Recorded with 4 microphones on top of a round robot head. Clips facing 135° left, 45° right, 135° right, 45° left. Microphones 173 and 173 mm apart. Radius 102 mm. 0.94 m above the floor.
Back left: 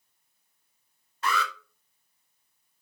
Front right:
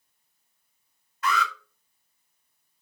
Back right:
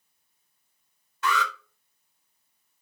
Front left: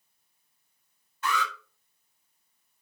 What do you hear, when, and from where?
1.2 s an alarm: 160° right, 4.5 m